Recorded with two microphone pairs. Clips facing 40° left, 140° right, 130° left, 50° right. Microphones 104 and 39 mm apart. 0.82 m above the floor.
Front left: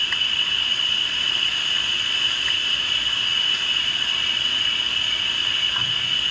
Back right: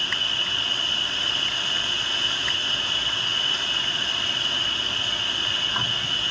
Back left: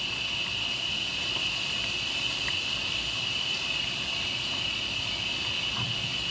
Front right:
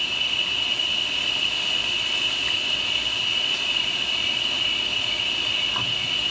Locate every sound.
0.0 s an insect: 75° right, 2 m